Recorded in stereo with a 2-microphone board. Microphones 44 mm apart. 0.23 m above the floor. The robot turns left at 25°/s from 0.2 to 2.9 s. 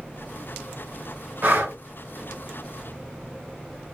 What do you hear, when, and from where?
1.4 s breathing: 50° right (ahead or behind), 2 m